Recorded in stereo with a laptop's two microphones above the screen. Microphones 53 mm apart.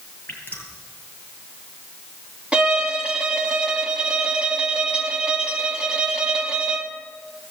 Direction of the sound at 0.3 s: 35° left (ahead or behind).